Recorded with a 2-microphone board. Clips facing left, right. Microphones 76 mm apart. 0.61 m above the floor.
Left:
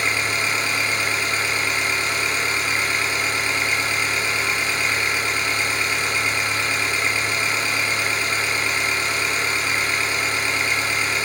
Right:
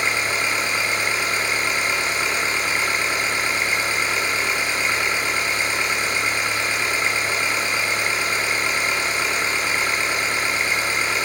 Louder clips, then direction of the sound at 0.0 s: Even; 25° right (ahead or behind).